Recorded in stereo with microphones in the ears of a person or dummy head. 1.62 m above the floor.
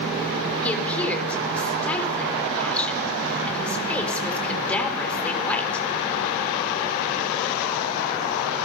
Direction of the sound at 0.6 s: 10° left (ahead or behind).